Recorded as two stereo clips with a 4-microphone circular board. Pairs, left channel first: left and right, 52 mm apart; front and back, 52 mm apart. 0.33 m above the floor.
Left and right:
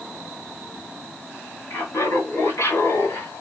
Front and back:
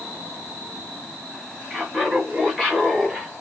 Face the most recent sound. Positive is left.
turn(degrees=85)